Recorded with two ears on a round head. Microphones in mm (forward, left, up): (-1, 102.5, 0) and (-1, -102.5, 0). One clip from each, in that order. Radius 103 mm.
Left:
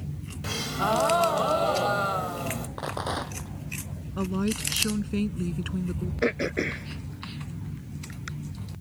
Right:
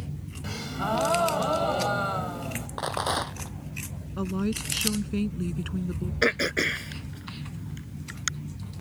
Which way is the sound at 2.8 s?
30° right (ahead or behind).